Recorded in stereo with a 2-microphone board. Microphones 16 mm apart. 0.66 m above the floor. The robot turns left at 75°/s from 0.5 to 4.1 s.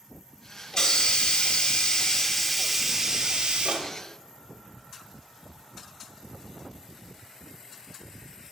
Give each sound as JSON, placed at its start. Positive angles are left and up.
{"t": 0.7, "sound": "a hiss", "azimuth_deg": 145, "distance_m": 0.6}